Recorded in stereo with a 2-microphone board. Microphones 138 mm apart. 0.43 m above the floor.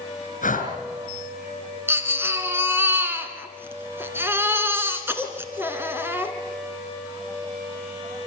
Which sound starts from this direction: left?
Breathing, at 0.4 s.